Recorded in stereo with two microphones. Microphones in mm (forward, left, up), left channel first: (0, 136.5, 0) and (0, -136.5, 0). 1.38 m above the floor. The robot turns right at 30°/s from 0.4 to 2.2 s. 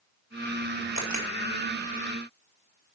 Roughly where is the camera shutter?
Right.